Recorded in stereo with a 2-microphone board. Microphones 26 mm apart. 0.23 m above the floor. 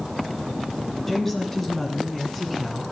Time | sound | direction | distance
1.1 | a woman speaking | 10° left (ahead or behind) | 1.8 m